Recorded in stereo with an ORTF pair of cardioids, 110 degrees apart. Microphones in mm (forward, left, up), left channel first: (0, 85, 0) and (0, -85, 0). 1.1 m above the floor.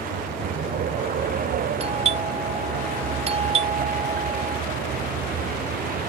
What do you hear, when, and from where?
0.0 s a vehicle: 55° right; by 6.1 s 60° right
1.8 s a doorbell: 40° right